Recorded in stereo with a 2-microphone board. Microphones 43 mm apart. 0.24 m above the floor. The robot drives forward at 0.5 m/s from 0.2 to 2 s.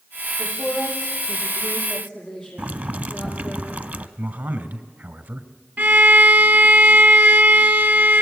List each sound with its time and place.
0.4 s a woman speaking: 5° left (ahead or behind), 8.5 m
2.6 s boiling: 45° right (ahead or behind), 0.9 m
4.2 s a man speaking: 55° right (ahead or behind), 2.0 m
5.8 s a violin: 60° right (ahead or behind), 1.2 m